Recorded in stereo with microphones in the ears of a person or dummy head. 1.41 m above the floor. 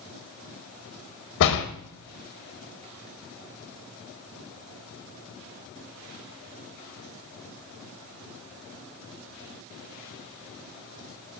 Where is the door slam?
65° left (ahead or behind), 1.2 m.